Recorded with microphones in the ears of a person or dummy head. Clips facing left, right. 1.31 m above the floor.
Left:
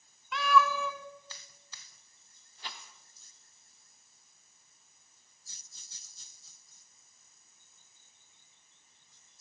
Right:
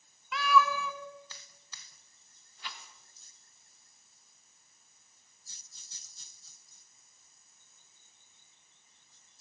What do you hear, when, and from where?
0.3 s a cat meowing: 5° right (ahead or behind), 1.6 m
2.6 s a rattle: 30° left (ahead or behind), 1.7 m